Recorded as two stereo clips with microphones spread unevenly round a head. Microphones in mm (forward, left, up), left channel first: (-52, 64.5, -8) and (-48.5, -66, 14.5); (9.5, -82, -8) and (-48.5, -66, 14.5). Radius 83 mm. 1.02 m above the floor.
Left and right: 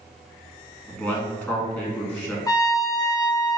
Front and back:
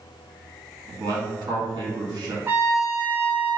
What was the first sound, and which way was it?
A man speaking, 175° left.